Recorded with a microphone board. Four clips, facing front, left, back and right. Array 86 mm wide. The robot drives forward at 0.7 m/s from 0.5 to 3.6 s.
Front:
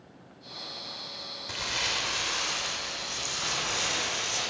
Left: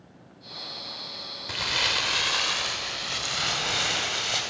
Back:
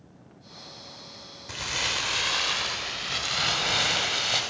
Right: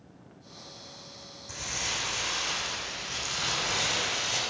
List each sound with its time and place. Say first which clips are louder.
1.5 s crumpling: left 7 dB, back 2 dB; 90° left, 1.0 m; by 4.4 s 150° left, 1.8 m